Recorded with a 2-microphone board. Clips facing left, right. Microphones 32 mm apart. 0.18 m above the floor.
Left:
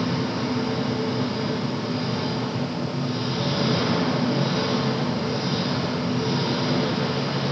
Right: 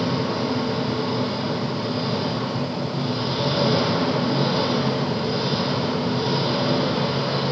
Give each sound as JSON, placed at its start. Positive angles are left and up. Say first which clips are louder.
{"t": 0.0, "sound": "an engine running", "louder": "right 2 dB", "side_deg": -60, "distance_m": 6.5}